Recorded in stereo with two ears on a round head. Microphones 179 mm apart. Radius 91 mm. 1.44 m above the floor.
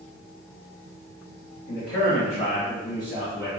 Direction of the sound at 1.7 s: 40° left (ahead or behind).